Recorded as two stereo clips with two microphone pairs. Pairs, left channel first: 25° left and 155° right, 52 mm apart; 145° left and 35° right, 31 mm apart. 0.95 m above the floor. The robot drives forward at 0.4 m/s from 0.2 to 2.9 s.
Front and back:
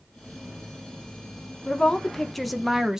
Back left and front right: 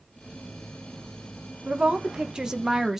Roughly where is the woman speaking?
Ahead right.